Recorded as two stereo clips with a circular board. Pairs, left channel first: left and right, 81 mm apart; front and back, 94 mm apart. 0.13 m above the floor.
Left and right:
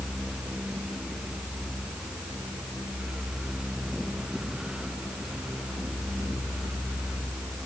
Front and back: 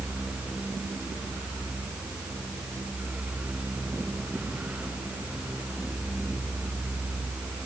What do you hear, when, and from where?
Only background noise.